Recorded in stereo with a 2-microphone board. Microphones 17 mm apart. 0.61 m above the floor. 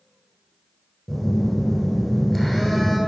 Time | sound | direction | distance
1.1 | a phone buzzing | 10° left (ahead or behind) | 1.7 m